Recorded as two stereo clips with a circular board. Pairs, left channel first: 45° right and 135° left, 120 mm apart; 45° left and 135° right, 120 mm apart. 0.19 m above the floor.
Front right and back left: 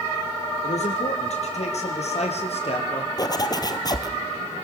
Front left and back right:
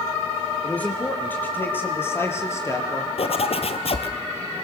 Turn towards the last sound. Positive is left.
turn(degrees=10)